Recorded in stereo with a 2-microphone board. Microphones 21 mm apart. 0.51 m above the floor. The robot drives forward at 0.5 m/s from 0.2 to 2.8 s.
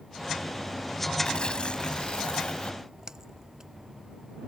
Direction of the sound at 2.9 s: 30° right (ahead or behind).